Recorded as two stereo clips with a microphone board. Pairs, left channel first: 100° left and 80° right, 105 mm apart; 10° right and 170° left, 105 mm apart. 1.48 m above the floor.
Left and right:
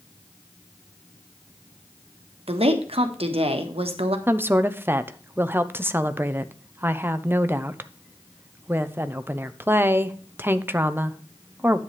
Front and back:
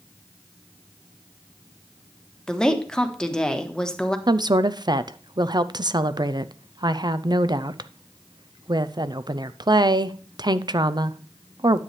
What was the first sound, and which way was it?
A woman speaking, 95° right.